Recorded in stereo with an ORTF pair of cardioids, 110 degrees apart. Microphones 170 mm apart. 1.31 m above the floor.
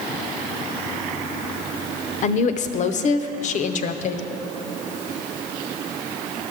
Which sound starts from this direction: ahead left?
A woman speaking, at 2.2 s.